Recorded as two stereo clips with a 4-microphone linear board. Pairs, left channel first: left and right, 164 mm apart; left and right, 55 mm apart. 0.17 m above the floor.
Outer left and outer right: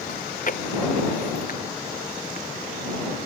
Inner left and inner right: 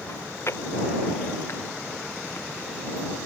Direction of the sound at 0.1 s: 55° left (ahead or behind).